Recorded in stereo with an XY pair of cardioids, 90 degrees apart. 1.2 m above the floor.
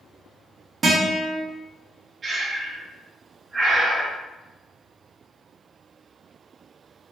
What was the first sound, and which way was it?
A guitar, 45° right.